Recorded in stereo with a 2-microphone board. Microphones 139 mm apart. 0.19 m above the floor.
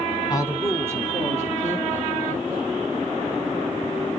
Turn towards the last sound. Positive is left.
turn(degrees=-75)  # may be behind; listen again after turning